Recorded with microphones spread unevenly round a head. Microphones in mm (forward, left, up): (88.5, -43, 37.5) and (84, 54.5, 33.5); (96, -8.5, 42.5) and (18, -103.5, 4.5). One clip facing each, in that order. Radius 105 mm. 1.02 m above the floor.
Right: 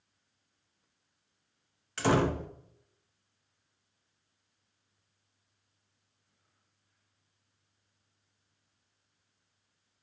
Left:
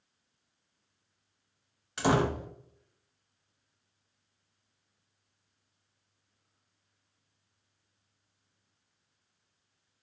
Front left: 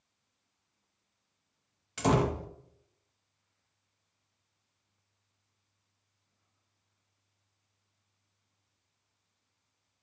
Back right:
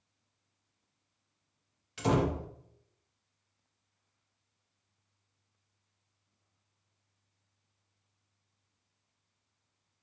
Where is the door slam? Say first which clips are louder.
Even, front left 2 dB; 15° left, 0.5 m.